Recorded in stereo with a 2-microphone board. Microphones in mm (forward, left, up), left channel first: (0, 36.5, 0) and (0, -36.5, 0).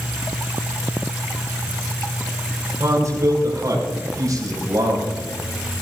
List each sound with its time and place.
2.8 s a man speaking: 45° right (ahead or behind), 6 m; by 5.1 s 55° right (ahead or behind), 6.5 m